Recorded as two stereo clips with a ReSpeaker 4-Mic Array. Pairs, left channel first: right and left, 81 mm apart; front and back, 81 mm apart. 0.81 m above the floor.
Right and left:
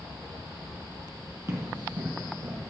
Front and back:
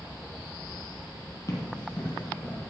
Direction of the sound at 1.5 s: 35° left.